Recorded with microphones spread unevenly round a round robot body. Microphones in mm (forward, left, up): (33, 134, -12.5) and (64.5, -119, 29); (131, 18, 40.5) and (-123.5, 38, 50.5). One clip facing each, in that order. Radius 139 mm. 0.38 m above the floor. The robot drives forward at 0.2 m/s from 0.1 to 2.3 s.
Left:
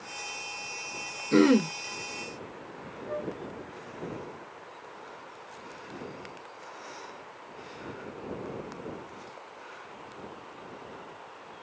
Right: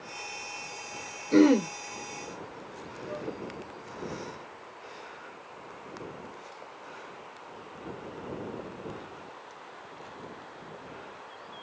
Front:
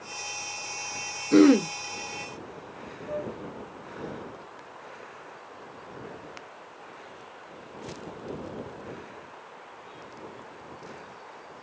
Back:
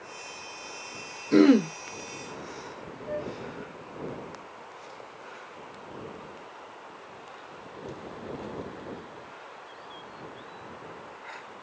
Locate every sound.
1.3 s throat clearing: 70° left, 0.7 m; by 1.7 s 85° left, 0.7 m
3.1 s a flute: 160° left, 3 m